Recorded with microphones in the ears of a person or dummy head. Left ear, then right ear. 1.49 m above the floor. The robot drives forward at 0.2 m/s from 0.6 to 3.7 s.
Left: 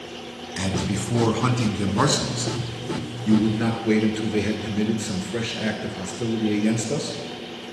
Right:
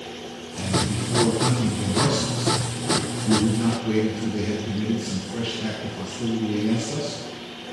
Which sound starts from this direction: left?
A man speaking, at 0.6 s.